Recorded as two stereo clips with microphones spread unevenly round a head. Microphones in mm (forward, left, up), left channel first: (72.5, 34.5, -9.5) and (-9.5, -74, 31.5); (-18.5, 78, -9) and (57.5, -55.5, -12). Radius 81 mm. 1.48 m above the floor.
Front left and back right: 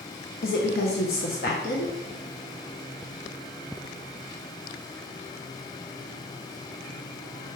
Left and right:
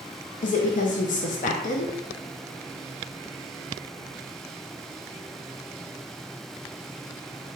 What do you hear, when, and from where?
0.4 s a woman speaking: 90° left, 0.6 m